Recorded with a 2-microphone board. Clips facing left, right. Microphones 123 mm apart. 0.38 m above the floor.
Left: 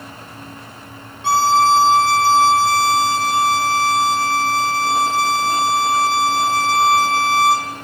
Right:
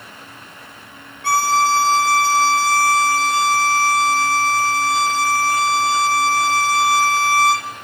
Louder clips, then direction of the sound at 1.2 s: Left 3 dB; 20° left (ahead or behind).